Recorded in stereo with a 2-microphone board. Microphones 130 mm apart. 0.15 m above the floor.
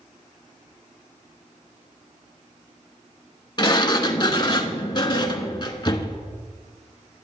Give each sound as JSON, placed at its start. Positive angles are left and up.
{"t": 3.6, "sound": "a sliding door", "side_deg": 35, "distance_m": 0.8}